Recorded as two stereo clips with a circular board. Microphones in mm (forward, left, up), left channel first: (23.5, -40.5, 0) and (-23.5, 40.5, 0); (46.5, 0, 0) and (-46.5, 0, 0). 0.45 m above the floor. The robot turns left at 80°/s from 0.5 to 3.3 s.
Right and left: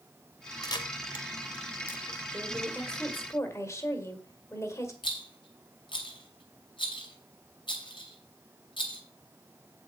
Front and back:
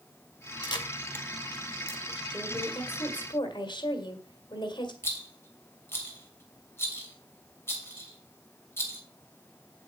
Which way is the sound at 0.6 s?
20° right.